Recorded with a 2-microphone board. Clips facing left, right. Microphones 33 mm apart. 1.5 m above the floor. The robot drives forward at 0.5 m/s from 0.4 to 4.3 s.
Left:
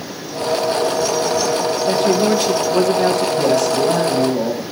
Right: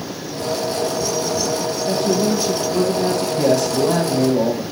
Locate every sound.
1.9 s a man speaking: 65° left (ahead or behind), 2 m; by 3.3 s 80° left, 2.0 m
3.4 s a man speaking: 5° left (ahead or behind), 6 m